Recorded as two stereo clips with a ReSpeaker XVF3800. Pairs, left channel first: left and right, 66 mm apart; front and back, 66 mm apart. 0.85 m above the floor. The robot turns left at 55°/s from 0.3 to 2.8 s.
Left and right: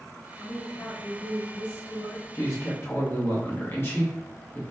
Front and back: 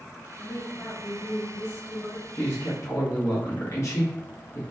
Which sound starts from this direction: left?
A woman speaking, at 0.4 s.